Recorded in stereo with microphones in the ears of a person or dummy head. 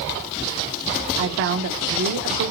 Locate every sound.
1.2 s a woman speaking: 70° right (ahead or behind), 0.6 m